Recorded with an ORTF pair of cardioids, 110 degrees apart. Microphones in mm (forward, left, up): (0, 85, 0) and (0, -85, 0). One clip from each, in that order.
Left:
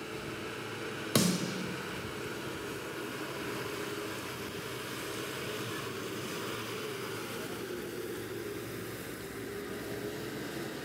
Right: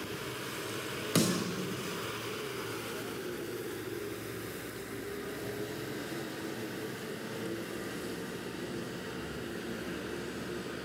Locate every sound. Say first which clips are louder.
1.1 s a snare drum: left 1 dB; 10° left, 0.8 m